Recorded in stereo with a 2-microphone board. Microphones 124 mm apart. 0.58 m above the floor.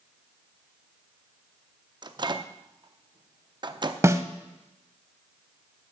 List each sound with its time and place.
2.0 s a microwave: 40° right (ahead or behind), 0.6 m
4.0 s a snare drum: 25° right (ahead or behind), 0.6 m